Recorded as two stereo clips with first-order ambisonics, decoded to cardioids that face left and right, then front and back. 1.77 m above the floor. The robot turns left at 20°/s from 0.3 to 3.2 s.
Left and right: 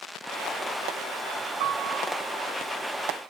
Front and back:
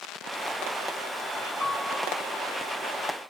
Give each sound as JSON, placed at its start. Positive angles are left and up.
{"t": 1.6, "sound": "a piano", "azimuth_deg": -80, "distance_m": 4.5}